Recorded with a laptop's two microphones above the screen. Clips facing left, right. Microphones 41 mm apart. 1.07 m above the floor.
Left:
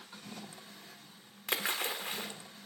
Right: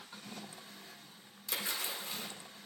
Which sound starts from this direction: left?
A splash, at 1.5 s.